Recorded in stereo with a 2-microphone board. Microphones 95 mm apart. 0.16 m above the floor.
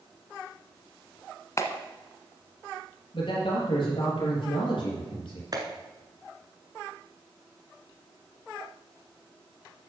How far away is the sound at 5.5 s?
About 1.3 m.